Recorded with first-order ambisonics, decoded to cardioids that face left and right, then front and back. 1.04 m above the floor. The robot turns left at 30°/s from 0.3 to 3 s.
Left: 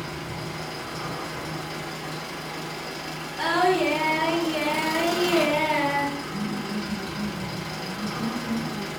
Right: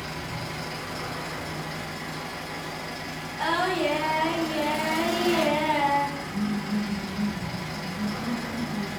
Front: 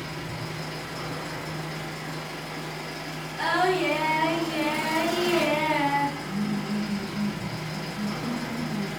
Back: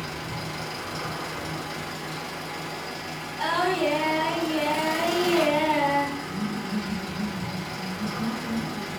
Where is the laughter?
5° left, 0.9 m.